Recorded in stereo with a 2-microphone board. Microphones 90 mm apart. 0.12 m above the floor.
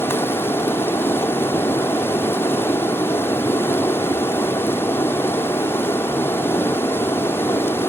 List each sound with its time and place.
0.0 s running water: 25° left (ahead or behind), 0.8 m